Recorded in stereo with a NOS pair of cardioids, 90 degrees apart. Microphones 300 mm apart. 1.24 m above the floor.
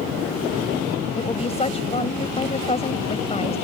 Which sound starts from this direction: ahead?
A woman speaking, at 1.2 s.